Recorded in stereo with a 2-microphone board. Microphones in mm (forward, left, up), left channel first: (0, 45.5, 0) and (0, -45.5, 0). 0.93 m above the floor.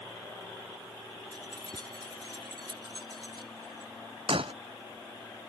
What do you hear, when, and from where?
1.3 s keys jangling: 50° right (ahead or behind); by 3.9 s 55° right (ahead or behind)
4.3 s breaking glass: 90° right